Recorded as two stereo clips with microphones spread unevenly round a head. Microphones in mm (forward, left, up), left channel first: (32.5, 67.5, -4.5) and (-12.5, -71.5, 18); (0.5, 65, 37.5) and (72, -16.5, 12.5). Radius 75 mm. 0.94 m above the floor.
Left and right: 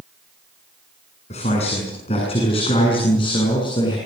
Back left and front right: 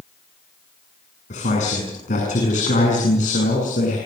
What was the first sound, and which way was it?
A man speaking, 120° left.